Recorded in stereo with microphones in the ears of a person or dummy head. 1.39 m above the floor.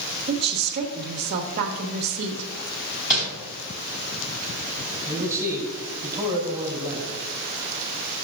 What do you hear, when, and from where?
0.3 s a woman speaking: 50° right (ahead or behind), 1.3 m
3.1 s crumpling: 5° right (ahead or behind), 3.5 m
5.0 s a man speaking: 15° right (ahead or behind), 2.5 m